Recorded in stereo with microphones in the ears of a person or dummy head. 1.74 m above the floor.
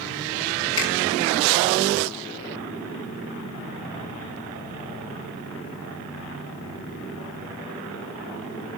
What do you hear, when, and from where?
0.8 s a finger snap: 60° left (ahead or behind), 9 m